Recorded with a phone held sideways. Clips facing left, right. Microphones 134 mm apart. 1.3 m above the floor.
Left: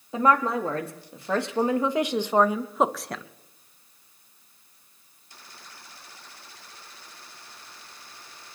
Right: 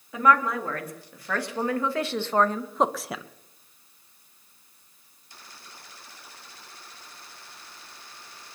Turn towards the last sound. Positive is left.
turn(degrees=-10)  # may be behind; listen again after turning